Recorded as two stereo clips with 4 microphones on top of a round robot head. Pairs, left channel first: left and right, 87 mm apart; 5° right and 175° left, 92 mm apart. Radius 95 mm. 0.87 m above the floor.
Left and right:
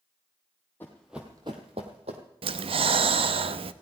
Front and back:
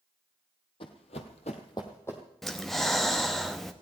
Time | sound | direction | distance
0.8 | running footsteps | 15° left | 1.5 m
2.4 | breathing | 95° right | 0.7 m